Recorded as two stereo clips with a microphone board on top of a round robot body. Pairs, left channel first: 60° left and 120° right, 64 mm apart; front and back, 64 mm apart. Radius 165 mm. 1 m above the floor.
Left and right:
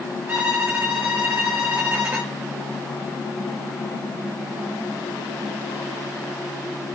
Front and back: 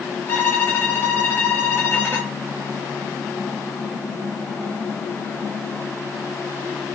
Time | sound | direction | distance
0.3 | a violin | 55° right | 0.5 m